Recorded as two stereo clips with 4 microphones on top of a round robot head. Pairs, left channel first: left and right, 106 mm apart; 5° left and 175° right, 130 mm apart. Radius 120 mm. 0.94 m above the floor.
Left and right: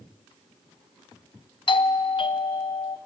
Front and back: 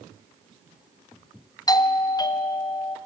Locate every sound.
1.7 s a doorbell: 60° left, 1.2 m